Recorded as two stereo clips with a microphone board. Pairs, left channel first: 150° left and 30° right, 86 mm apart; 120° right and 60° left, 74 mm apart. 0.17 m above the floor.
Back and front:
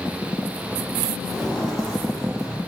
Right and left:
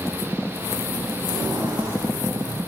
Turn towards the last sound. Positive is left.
turn(degrees=65)